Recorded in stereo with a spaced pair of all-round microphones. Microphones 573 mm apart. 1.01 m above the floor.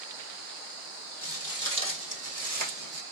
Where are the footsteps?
15° right (ahead or behind), 1.7 m; by 3.0 s 35° right (ahead or behind), 1.2 m.